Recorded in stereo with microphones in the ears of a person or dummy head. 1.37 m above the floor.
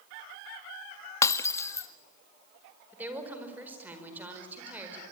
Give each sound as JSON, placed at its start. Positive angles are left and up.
{"t": 1.2, "sound": "breaking glass", "side_deg": 20, "distance_m": 1.2}
{"t": 2.9, "sound": "a woman speaking", "side_deg": -10, "distance_m": 4.5}